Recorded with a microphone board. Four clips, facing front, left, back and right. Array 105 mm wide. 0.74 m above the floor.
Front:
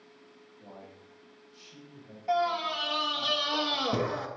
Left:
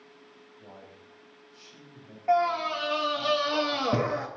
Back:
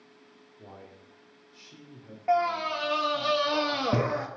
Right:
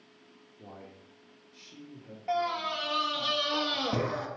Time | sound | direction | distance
0.6 | a man speaking | 130° right | 1.9 m
2.3 | a scream | 150° left | 0.7 m